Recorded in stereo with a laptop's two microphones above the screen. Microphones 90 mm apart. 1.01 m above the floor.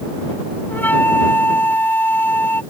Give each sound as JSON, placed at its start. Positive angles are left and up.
{"t": 0.7, "sound": "a flute", "side_deg": 20}